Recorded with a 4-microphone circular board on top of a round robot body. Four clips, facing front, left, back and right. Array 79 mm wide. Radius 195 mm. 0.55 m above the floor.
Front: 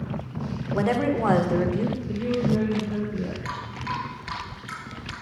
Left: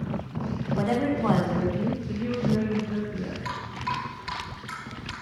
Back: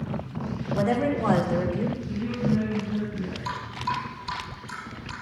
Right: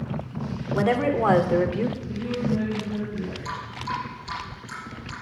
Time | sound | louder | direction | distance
0.7 | a woman speaking | right 4 dB, front 1 dB | 50° right | 2 m
2.1 | a woman speaking | even, front 3 dB | 15° left | 2.5 m
3.5 | dripping | even, back 2 dB | 35° left | 3.5 m